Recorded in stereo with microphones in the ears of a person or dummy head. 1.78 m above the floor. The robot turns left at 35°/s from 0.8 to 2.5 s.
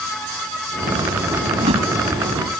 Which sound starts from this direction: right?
A whoosh, at 1.5 s.